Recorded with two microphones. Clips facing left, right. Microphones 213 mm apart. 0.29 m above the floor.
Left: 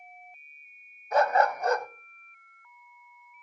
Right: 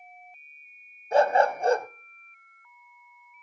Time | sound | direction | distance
1.1 | a dog barking | 30° right (ahead or behind) | 0.6 m